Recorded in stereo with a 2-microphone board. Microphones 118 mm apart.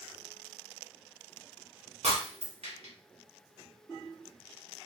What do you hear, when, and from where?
2.0 s breaking glass: 70° right (ahead or behind), 2 m